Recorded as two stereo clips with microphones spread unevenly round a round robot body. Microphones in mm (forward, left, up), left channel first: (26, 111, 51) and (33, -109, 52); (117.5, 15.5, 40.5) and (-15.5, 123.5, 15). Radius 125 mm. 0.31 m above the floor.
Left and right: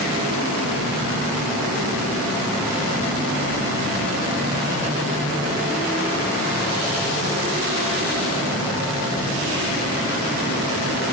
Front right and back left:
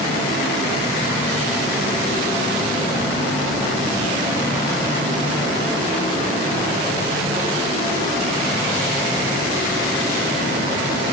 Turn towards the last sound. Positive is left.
No sound to turn to.